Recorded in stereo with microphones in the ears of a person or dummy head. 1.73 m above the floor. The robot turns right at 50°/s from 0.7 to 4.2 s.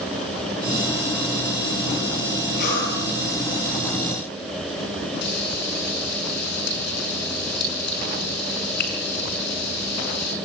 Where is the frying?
55° left (ahead or behind), 5.5 m.